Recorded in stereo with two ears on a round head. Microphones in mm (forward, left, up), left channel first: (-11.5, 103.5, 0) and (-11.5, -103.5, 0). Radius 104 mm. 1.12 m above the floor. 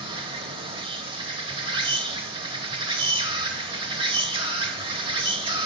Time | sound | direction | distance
0.0 | an insect | 25° right (ahead or behind) | 1.1 m